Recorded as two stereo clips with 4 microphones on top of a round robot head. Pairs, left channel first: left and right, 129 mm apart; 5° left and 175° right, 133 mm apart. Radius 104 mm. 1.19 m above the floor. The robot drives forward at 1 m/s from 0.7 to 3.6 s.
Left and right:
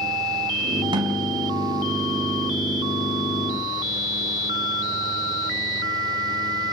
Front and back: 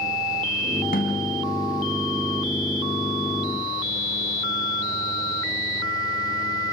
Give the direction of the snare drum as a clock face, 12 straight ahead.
1 o'clock.